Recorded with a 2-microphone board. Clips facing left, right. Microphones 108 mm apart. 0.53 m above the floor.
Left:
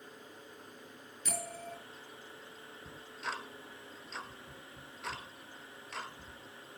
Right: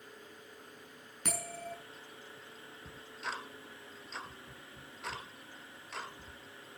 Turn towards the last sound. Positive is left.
turn(degrees=-5)  # may be behind; listen again after turning